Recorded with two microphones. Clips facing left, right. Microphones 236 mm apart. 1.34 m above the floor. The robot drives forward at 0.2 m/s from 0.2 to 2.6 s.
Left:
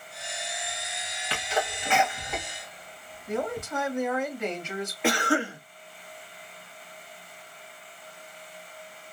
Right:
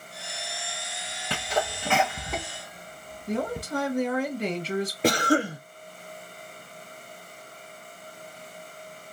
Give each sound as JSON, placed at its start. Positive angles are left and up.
{"t": 1.3, "sound": "a sneeze", "side_deg": -50, "distance_m": 0.8}
{"t": 3.3, "sound": "a man speaking", "side_deg": -35, "distance_m": 1.0}
{"t": 5.0, "sound": "a cough", "side_deg": -40, "distance_m": 0.7}